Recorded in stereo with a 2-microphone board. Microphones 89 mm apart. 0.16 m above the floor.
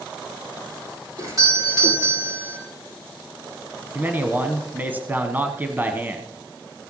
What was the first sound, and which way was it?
A doorbell, 40° right (ahead or behind).